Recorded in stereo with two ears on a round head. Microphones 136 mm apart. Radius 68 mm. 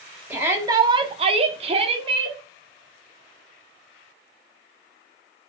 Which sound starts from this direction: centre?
A shout, at 0.3 s.